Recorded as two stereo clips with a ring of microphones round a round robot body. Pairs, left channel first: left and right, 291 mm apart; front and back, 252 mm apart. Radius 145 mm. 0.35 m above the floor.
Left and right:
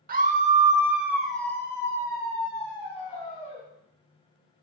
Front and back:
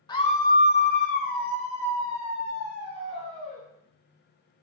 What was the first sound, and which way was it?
A scream, 60° right.